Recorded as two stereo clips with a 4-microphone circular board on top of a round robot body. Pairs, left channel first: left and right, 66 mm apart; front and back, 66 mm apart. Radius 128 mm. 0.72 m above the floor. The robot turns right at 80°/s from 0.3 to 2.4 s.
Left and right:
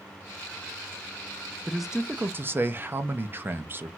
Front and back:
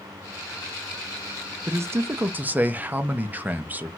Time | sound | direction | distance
1.7 | a man speaking | 170° left | 0.6 m